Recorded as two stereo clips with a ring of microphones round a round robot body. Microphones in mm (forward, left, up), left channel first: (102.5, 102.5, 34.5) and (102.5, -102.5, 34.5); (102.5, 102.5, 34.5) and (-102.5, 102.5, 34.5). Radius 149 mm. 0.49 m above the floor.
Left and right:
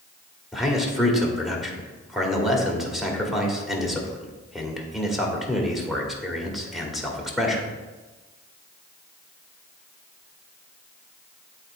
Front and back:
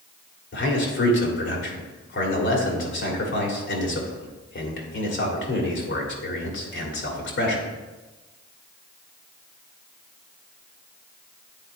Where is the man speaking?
Straight ahead, 1.8 m.